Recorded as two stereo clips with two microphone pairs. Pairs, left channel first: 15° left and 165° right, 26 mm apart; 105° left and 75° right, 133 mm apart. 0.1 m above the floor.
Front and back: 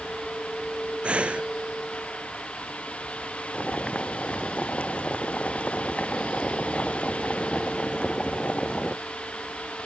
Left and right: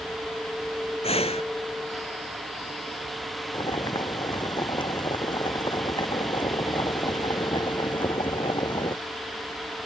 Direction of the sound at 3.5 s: 50° left.